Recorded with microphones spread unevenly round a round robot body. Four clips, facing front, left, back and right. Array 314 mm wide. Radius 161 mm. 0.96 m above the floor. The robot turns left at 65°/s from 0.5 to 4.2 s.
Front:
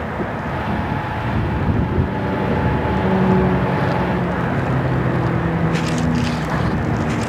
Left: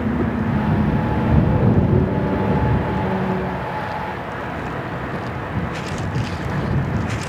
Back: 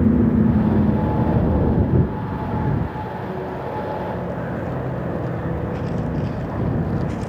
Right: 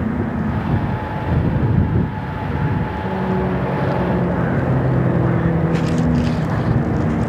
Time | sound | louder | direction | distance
0.0 | a vehicle | even, back 7 dB | straight behind | ?